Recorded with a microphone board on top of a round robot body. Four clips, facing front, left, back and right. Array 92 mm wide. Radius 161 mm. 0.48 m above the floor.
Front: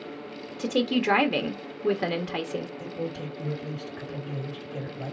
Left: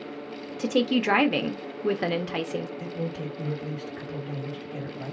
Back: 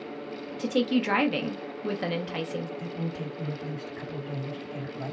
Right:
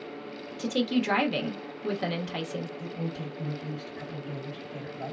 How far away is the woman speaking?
About 1.0 m.